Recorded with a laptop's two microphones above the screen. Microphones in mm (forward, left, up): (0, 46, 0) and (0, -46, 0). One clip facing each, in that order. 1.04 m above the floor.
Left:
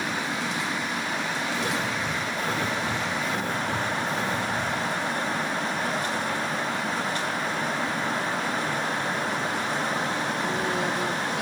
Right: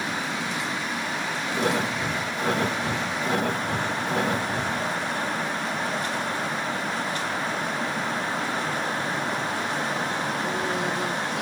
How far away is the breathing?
About 1.5 m.